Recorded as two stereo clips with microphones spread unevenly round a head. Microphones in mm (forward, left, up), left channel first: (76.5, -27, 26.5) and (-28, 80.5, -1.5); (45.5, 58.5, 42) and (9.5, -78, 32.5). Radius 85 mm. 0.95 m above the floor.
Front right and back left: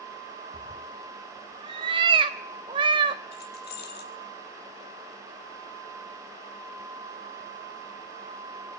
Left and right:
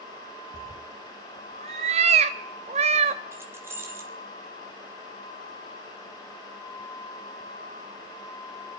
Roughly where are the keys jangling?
Ahead right.